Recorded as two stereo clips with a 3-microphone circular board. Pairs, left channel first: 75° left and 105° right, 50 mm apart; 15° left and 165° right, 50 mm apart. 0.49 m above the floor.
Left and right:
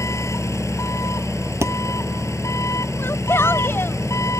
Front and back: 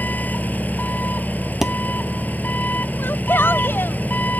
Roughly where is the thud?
Right.